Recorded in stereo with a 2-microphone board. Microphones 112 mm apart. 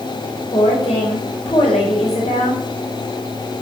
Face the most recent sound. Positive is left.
turn(degrees=60)  # may be behind; listen again after turning